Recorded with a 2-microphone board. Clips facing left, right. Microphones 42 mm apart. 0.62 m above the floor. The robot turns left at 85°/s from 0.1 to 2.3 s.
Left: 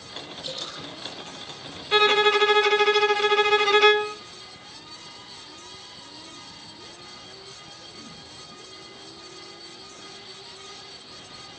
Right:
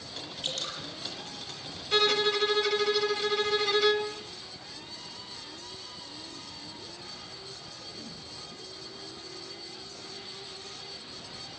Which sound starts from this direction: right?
Dripping, at 0.4 s.